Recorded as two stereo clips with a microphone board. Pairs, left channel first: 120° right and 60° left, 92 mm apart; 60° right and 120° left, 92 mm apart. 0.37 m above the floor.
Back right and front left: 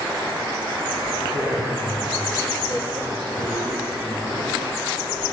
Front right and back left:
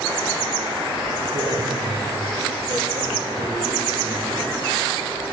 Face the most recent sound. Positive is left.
turn(degrees=95)